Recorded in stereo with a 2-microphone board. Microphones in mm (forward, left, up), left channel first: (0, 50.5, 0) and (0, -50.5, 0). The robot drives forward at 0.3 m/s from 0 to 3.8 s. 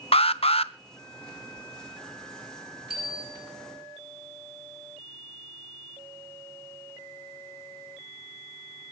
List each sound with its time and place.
0.1 s an alarm: 65° left (ahead or behind), 0.8 m; by 0.7 s 70° left (ahead or behind), 0.8 m
2.9 s a bicycle bell: 5° right (ahead or behind), 7 m